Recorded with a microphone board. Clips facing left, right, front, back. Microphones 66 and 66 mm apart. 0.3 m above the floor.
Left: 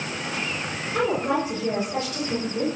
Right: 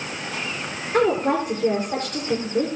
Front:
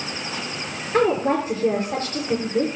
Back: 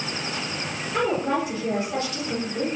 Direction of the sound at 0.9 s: 50° right.